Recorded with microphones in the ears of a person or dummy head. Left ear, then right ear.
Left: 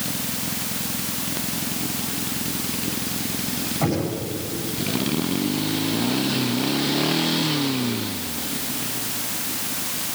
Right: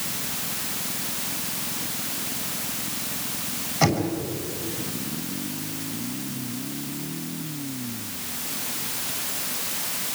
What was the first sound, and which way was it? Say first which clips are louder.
Knocking: right 3 dB; 85° right.